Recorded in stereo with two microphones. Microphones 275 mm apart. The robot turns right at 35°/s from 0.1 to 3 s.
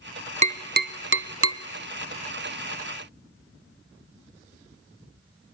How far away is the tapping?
About 0.7 m.